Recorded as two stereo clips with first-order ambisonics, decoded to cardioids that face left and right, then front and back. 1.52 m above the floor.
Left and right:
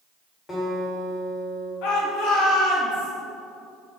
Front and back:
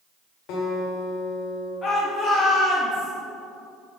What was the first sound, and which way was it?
A guitar, 20° left.